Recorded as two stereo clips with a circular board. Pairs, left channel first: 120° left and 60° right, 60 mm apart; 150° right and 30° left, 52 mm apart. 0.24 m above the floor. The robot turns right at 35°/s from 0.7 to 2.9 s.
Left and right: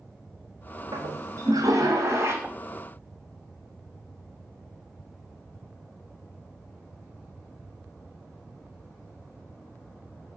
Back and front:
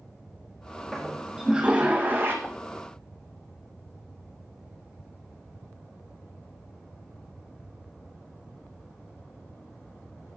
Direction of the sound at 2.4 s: 110° right.